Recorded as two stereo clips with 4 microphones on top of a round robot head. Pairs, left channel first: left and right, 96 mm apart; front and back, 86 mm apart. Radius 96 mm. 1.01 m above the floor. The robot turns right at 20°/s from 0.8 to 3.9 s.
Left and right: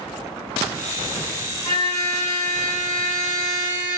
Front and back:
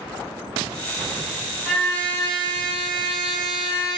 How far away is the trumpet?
About 4 m.